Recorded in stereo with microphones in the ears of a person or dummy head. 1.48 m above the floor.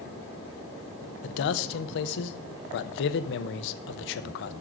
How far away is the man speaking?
About 0.7 m.